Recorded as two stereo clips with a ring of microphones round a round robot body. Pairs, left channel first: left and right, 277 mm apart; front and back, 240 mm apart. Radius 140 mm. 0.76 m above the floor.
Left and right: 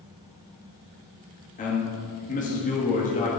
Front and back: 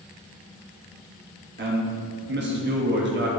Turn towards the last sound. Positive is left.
turn(degrees=150)